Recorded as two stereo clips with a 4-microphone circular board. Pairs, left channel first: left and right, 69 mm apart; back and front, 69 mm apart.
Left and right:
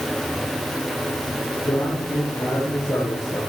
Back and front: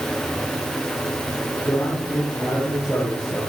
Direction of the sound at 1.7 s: 120° left.